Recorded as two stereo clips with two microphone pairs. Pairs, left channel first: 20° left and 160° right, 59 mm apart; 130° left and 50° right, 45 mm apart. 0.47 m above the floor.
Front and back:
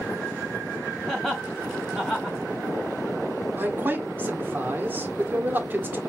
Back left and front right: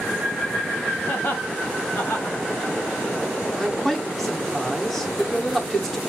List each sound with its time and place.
1.1 s laughter: 105° left, 2.5 m
3.6 s a man speaking: 150° right, 1.3 m